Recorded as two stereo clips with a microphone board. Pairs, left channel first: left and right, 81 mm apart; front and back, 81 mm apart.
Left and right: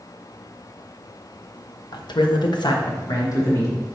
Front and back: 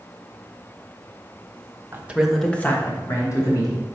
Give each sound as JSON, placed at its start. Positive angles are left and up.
{"t": 1.9, "sound": "a man speaking", "azimuth_deg": 115, "distance_m": 0.8}